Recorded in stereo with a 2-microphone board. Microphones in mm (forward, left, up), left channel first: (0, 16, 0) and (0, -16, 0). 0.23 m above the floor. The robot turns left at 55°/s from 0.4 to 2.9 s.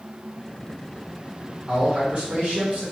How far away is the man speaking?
About 2.0 m.